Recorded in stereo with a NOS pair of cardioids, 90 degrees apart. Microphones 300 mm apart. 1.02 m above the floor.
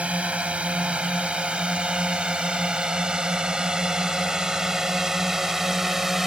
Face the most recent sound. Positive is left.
turn(degrees=0)